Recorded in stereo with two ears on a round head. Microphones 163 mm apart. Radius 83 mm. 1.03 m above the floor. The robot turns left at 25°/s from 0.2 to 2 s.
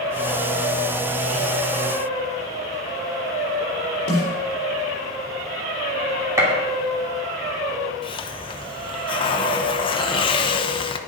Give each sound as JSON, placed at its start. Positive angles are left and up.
{"t": 4.1, "sound": "a snare drum", "side_deg": 60, "distance_m": 4.5}
{"t": 6.4, "sound": "a gunshot", "side_deg": -15, "distance_m": 2.5}
{"t": 8.0, "sound": "a hiss", "side_deg": 30, "distance_m": 0.8}